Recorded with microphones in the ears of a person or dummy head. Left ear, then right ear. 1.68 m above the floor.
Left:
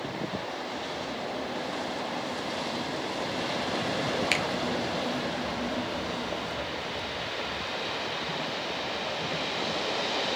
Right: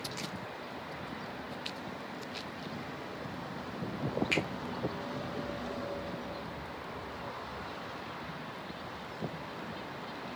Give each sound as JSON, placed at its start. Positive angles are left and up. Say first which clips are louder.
{"t": 4.3, "sound": "a finger snap", "louder": "left 3 dB", "side_deg": 35, "distance_m": 1.0}